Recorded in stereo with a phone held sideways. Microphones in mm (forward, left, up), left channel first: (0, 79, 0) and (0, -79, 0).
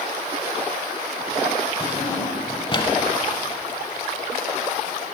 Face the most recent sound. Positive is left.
turn(degrees=30)  # may be behind; listen again after turning